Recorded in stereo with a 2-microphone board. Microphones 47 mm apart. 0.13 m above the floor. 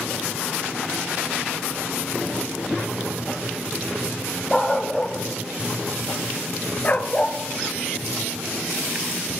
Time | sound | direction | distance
4.5 | a dog barking | 15° left (ahead or behind) | 1.9 m